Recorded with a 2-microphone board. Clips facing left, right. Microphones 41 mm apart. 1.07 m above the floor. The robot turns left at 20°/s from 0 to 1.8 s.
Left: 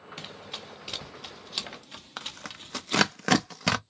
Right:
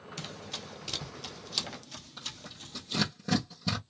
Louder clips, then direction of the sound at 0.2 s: Even; 20° left (ahead or behind).